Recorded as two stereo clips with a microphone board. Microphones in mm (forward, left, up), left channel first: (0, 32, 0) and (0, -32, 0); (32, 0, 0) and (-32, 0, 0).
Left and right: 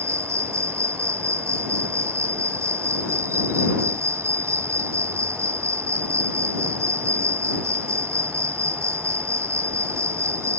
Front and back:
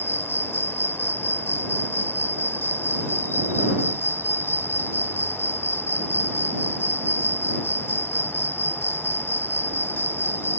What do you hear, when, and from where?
0.0 s an insect: 50° right